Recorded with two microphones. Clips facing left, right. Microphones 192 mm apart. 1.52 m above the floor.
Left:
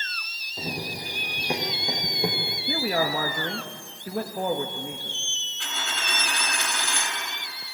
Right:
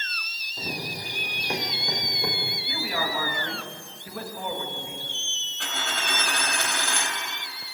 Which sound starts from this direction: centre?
Running footsteps, at 0.6 s.